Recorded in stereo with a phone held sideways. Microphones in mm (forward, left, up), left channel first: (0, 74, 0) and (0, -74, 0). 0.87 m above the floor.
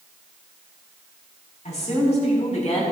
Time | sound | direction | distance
1.6 | a woman speaking | 45° left (ahead or behind) | 5.5 m